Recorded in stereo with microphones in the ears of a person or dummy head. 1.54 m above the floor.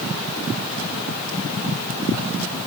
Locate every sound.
Only background noise.